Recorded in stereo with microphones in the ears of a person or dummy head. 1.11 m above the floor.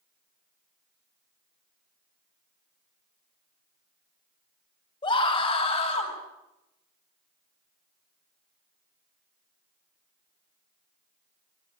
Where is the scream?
25° left (ahead or behind), 5 m; by 6.1 s 40° left (ahead or behind), 6 m.